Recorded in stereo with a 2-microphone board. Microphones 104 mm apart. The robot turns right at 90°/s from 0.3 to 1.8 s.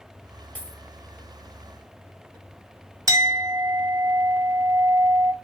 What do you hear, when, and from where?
0.6 s a dropped coin: 15° left (ahead or behind), 1.6 m; by 0.8 s 10° right (ahead or behind), 1.6 m
3.1 s a clink: 35° right (ahead or behind), 0.7 m